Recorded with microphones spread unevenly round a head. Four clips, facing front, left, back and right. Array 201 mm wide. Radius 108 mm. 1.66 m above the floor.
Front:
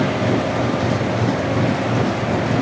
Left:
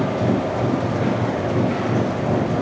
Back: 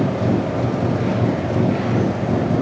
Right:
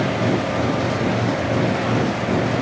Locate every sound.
Only background noise.